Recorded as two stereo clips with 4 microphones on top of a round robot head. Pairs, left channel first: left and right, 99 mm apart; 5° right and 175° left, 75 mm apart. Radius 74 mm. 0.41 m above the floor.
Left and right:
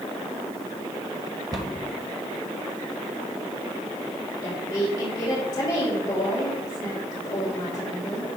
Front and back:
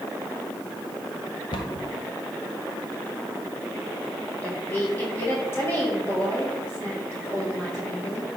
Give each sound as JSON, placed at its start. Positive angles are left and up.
{"t": 1.5, "sound": "a cupboard door", "azimuth_deg": -35, "distance_m": 1.0}
{"t": 4.4, "sound": "a woman speaking", "azimuth_deg": 45, "distance_m": 2.0}